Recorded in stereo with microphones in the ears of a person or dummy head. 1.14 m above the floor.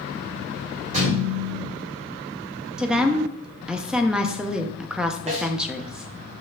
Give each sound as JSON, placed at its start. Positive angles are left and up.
{"t": 0.9, "sound": "a thud", "side_deg": -45, "distance_m": 3.0}
{"t": 2.8, "sound": "a woman speaking", "side_deg": 0, "distance_m": 0.6}
{"t": 5.3, "sound": "a snare drum", "side_deg": -35, "distance_m": 1.6}